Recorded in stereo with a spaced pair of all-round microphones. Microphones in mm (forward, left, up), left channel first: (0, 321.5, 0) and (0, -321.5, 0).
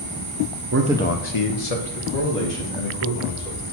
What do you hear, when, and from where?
0.7 s a man speaking: 30° right (ahead or behind), 0.7 m; by 3.6 s 75° left (ahead or behind), 4 m